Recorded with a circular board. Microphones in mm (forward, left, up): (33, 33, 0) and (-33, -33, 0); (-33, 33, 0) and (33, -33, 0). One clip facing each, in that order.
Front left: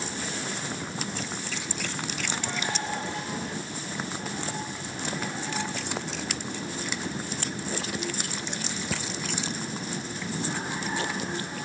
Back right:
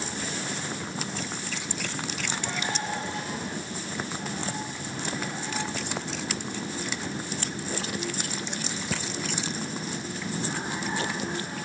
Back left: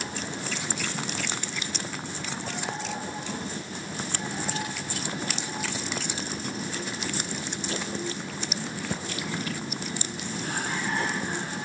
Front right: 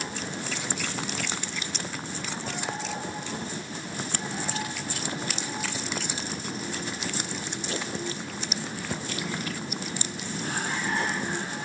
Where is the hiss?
I don't hear a hiss.